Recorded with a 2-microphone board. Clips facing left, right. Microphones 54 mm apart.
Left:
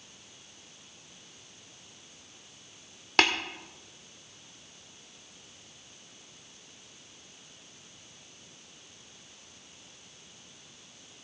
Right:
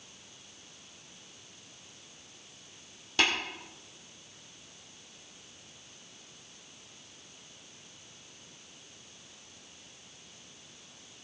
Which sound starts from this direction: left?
Tapping, at 3.2 s.